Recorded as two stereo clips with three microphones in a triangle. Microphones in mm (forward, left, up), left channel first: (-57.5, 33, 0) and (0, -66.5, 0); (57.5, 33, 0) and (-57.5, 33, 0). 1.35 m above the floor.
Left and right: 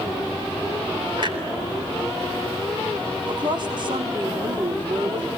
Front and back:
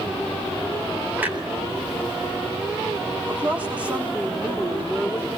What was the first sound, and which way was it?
A clunk, 105° right.